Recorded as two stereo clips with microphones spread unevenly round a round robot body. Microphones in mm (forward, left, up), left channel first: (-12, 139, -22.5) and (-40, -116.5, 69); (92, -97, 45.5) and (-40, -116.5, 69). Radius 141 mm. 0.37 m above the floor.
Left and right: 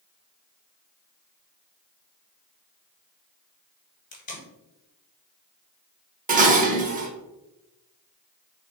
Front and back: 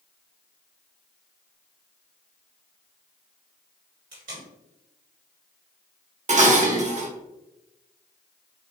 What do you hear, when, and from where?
4.1 s tape being pulled: 145° left, 1.6 m
6.3 s dishes clattering: 165° right, 0.8 m